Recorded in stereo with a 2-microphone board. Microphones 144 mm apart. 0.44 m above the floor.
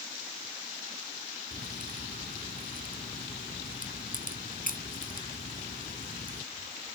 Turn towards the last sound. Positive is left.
turn(degrees=75)  # may be behind; listen again after turning